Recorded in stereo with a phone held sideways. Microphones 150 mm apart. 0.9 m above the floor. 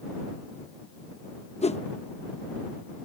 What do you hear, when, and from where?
1.6 s a whoosh: 45° left (ahead or behind)